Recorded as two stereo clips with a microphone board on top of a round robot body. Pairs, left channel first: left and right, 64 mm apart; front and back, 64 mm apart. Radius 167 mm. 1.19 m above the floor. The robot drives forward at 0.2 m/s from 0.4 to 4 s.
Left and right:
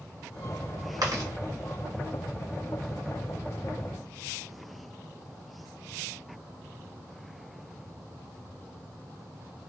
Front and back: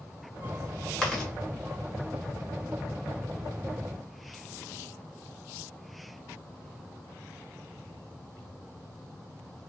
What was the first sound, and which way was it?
Chewing, 80° right.